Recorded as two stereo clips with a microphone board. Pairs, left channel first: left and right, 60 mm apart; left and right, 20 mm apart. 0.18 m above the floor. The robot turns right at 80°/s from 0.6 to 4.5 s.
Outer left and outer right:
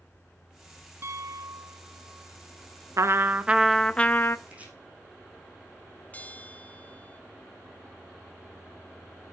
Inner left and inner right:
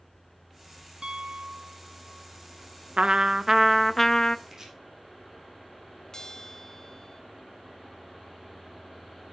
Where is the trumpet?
65° right, 0.5 m; by 4.4 s 50° left, 0.5 m.